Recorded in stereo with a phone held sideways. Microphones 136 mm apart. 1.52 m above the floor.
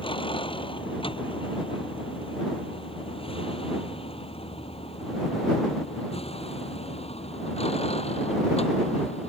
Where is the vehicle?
40° left (ahead or behind); by 9.3 s 50° left (ahead or behind).